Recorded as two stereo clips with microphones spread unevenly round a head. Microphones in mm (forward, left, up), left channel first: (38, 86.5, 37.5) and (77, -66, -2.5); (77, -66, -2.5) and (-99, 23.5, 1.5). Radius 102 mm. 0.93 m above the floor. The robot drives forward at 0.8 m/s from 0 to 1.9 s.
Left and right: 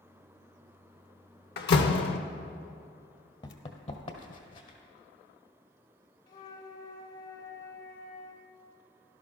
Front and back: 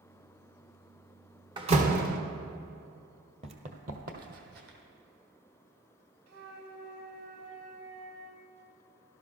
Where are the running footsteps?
110° left, 1.2 m; by 4.8 s 120° left, 1.9 m.